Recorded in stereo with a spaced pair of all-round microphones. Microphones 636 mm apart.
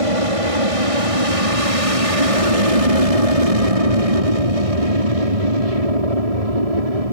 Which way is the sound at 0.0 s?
55° right (ahead or behind).